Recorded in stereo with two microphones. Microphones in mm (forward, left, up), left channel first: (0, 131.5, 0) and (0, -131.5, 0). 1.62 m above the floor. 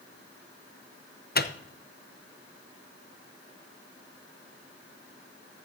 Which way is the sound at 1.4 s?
40° left (ahead or behind).